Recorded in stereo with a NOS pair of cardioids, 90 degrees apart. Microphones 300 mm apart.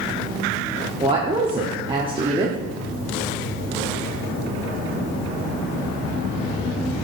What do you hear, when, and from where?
1.0 s a woman speaking: 15° right, 0.9 m